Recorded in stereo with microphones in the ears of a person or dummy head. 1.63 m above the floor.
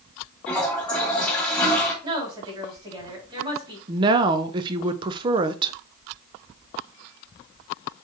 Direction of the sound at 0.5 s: 15° left (ahead or behind).